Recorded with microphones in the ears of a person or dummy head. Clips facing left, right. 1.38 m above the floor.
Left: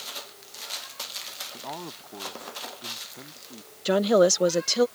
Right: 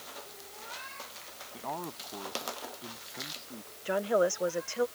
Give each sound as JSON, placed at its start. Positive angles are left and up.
{"t": 1.5, "sound": "a man speaking", "side_deg": 10}
{"t": 3.9, "sound": "a woman speaking", "side_deg": 65}